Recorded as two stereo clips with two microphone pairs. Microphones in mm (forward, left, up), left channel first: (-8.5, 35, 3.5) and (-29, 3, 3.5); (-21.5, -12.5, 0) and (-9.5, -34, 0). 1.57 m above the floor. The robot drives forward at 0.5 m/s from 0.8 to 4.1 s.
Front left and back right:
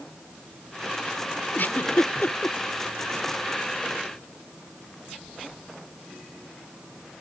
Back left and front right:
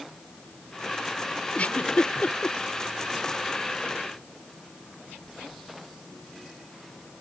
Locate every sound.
1.6 s a giggle: 90° left; by 2.6 s 95° left